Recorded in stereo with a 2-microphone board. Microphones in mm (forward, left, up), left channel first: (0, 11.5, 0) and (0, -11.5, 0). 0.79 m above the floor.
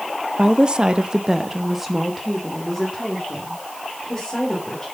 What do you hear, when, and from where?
0.4 s a woman speaking: 35° right (ahead or behind), 0.7 m; by 4.8 s 15° left (ahead or behind), 3 m